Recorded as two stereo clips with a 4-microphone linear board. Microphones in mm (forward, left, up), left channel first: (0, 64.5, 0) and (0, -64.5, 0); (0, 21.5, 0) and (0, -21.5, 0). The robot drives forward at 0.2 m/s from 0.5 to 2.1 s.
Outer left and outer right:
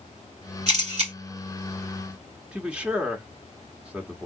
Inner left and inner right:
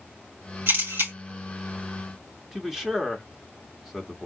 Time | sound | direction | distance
0.7 | a camera shutter | 65° right (ahead or behind) | 2.5 m
2.5 | a man speaking | 10° right (ahead or behind) | 0.7 m